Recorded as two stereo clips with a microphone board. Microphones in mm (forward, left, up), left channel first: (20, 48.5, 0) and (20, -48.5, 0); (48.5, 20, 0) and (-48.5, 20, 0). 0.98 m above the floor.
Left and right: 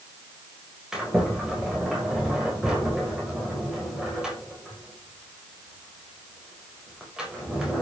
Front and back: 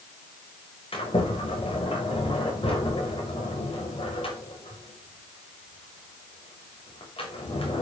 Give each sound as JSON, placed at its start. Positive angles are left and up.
{"t": 0.9, "sound": "a sliding door", "azimuth_deg": -5, "distance_m": 5.5}